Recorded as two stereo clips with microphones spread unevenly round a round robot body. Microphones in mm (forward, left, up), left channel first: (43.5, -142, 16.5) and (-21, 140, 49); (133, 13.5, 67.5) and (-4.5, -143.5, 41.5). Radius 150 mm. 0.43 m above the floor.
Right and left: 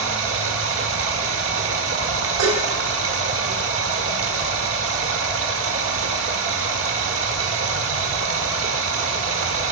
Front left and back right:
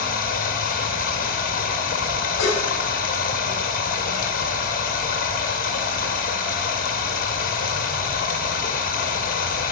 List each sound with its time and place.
0.0 s running water: 80° left, 1.3 m
2.4 s dishes clattering: 100° left, 2.5 m